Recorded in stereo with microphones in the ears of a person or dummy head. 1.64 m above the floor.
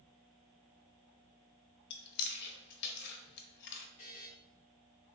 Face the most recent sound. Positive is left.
turn(degrees=30)  # may be behind; listen again after turning